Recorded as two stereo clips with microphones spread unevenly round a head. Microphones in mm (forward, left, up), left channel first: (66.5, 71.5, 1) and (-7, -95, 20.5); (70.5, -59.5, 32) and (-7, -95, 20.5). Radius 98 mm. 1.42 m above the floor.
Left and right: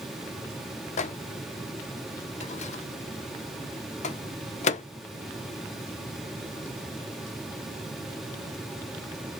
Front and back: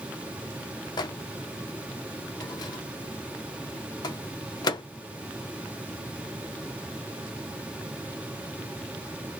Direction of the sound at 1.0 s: 15° left.